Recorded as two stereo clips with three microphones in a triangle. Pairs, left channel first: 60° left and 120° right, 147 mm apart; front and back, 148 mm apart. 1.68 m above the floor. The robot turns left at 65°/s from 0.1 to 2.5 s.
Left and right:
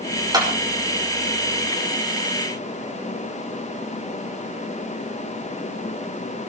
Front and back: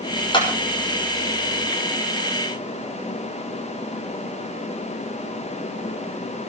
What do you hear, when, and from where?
0.3 s a clap: 55° right, 6.5 m; by 0.5 s 65° right, 6.5 m